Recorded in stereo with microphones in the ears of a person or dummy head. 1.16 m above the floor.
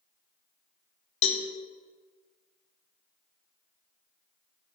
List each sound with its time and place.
1.2 s a cowbell: 30° left (ahead or behind), 1.2 m